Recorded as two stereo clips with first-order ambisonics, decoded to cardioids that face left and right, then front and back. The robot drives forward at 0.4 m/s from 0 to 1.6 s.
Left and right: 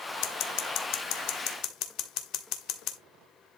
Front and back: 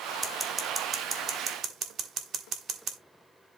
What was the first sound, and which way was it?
Scissors, 100° left.